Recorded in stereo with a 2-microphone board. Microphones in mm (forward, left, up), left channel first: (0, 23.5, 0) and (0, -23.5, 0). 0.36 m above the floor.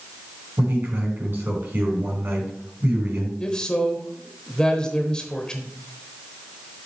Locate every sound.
0.6 s a man speaking: 55° right (ahead or behind), 3.5 m
3.4 s a man speaking: 20° left (ahead or behind), 1.1 m